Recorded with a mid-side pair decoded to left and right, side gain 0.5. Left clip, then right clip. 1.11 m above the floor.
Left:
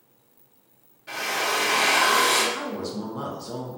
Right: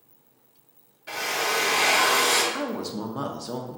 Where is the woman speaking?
35° right, 0.6 m.